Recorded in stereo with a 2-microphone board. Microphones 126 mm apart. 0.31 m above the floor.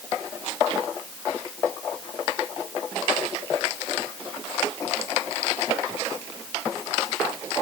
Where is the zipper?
I don't hear a zipper.